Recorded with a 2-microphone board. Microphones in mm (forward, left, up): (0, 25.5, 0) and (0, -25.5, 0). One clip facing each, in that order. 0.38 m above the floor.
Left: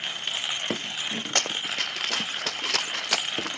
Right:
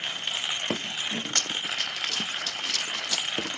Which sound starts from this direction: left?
Running footsteps, at 1.4 s.